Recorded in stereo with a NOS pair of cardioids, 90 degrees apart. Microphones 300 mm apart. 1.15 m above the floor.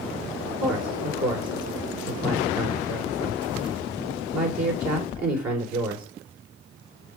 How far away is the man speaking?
About 4.5 m.